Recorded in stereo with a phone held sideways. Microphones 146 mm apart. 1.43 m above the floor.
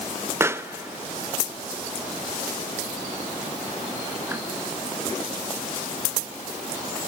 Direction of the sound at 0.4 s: 20° right (ahead or behind).